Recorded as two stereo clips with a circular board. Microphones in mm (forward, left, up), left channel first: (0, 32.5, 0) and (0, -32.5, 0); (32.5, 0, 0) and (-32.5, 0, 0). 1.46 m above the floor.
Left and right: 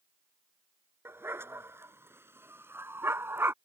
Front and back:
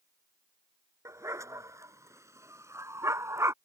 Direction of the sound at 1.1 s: 140° right.